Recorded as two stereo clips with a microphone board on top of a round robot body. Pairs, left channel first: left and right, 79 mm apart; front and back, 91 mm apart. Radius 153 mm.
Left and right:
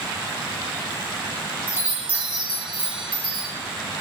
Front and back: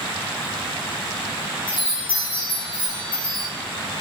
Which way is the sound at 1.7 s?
15° right.